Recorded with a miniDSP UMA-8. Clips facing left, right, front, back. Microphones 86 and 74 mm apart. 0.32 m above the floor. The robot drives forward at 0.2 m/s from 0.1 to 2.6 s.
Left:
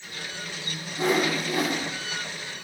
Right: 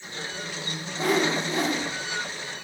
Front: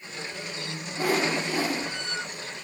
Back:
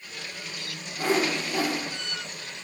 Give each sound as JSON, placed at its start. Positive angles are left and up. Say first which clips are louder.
{"t": 1.0, "sound": "a whoosh", "louder": "even, even", "azimuth_deg": 45, "distance_m": 0.9}